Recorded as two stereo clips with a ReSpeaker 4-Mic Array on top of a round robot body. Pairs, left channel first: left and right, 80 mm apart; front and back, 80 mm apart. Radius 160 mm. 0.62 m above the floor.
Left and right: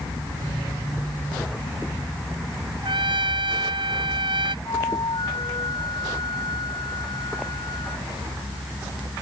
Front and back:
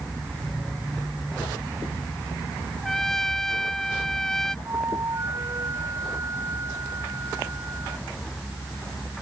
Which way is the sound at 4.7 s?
120° left.